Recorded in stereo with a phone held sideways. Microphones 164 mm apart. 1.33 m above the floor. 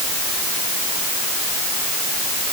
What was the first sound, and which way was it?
Only background noise.